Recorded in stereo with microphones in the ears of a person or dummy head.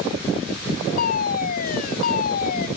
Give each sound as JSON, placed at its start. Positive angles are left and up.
{"t": 1.0, "sound": "a fire alarm", "side_deg": 55}